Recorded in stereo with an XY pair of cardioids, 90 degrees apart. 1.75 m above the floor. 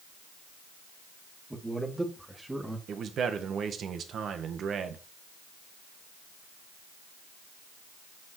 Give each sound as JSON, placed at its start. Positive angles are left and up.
{"t": 1.5, "sound": "a man speaking", "azimuth_deg": -10, "distance_m": 2.0}
{"t": 2.9, "sound": "a man speaking", "azimuth_deg": -70, "distance_m": 1.5}